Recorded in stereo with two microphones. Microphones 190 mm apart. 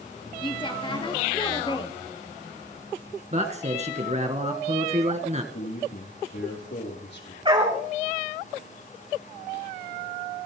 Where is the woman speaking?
25° left (ahead or behind), 2 m.